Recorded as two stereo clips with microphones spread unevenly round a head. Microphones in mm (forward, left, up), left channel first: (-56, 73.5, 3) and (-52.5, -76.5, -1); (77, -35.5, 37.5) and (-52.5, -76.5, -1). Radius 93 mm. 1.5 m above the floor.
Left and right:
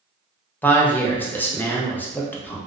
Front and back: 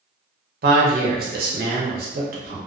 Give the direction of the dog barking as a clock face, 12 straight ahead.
No dog barking in this recording.